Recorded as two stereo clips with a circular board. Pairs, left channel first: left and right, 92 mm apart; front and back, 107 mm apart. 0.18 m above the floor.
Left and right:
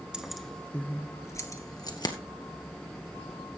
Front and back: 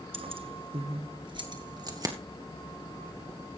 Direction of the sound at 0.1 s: 170° right.